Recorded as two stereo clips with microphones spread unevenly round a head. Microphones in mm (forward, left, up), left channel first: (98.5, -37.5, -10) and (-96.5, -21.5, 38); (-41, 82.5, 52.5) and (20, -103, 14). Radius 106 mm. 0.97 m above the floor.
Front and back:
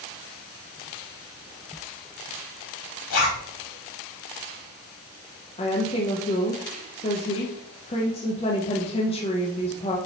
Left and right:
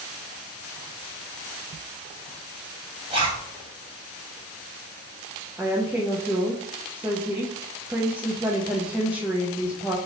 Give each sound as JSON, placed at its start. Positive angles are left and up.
{"t": 3.1, "sound": "a zipper", "azimuth_deg": -5, "distance_m": 1.6}
{"t": 5.6, "sound": "a woman speaking", "azimuth_deg": -5, "distance_m": 0.6}